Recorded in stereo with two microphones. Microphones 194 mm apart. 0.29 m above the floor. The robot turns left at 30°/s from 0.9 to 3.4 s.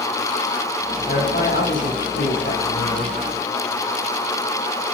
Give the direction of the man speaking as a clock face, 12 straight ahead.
8 o'clock.